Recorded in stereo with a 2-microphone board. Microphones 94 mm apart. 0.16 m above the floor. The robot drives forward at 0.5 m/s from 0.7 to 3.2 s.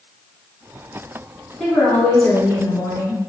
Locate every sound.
1.6 s a woman speaking: 10° left (ahead or behind), 1.1 m